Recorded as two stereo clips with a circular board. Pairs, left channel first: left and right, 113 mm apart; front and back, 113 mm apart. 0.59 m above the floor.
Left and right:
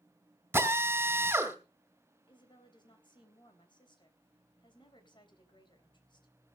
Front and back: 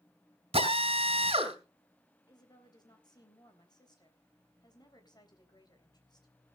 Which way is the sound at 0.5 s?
160° right.